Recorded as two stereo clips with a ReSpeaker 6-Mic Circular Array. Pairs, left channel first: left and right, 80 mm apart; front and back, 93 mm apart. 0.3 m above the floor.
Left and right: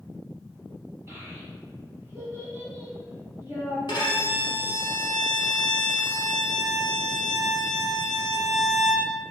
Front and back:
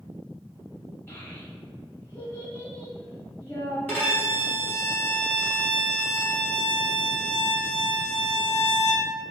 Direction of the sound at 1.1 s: 50° right.